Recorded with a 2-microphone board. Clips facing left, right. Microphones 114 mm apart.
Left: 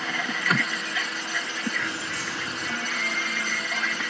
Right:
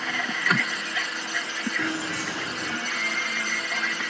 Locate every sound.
1.8 s keys jangling: 75° right (ahead or behind)